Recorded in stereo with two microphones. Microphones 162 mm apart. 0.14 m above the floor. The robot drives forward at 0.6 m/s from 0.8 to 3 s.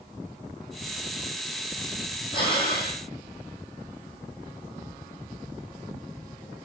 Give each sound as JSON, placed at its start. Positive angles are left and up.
{"t": 2.3, "sound": "breathing", "side_deg": 30, "distance_m": 2.5}